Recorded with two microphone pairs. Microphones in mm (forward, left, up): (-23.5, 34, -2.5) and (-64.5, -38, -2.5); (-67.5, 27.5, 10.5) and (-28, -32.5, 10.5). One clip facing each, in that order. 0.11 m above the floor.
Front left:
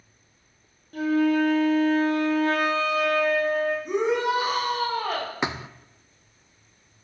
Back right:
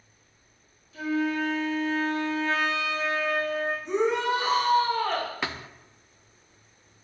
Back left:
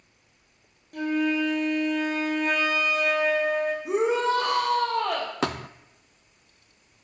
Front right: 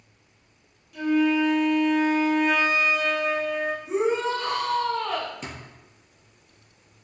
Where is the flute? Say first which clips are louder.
Front left 6 dB, front right 3 dB; 90° left, 3.5 m.